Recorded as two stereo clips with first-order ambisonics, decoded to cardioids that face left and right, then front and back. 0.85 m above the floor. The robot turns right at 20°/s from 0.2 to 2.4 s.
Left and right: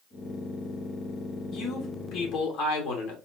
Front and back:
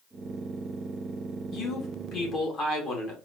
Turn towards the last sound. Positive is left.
turn(degrees=55)